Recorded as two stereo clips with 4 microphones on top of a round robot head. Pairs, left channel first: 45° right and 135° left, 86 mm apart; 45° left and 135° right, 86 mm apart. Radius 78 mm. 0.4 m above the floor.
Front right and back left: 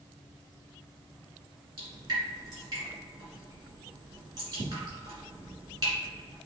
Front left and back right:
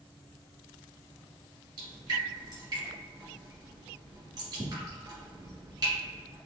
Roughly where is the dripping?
Behind.